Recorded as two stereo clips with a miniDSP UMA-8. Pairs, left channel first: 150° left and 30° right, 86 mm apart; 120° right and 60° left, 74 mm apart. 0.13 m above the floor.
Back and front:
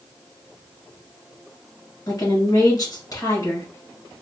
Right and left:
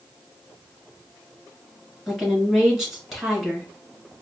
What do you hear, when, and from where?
2.1 s a woman speaking: 145° left, 1.8 m